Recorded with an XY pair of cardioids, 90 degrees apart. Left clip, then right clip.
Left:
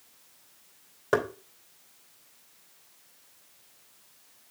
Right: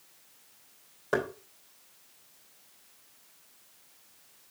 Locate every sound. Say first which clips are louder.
1.1 s knocking: left 3 dB; 35° left, 2.5 m